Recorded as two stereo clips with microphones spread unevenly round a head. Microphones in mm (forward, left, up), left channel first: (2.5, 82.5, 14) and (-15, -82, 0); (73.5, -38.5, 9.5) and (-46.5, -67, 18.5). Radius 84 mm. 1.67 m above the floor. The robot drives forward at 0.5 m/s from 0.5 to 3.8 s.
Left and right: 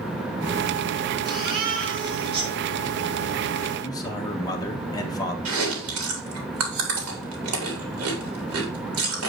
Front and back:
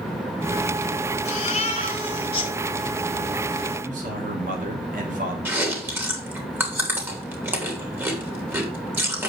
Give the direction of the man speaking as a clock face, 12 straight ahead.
7 o'clock.